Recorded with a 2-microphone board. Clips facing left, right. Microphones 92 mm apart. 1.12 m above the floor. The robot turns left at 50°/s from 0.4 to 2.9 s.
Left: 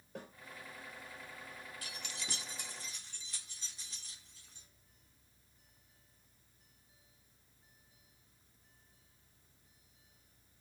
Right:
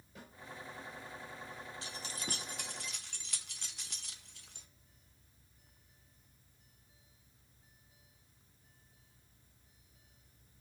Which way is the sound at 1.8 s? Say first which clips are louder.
Right 3 dB; 25° right (ahead or behind).